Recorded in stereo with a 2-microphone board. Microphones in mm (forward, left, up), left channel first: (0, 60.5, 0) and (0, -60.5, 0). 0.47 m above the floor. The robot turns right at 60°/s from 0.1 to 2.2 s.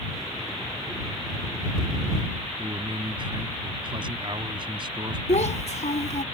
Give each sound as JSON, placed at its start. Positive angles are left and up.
{"t": 2.6, "sound": "a man speaking", "side_deg": -45}
{"t": 5.3, "sound": "a child speaking", "side_deg": 70}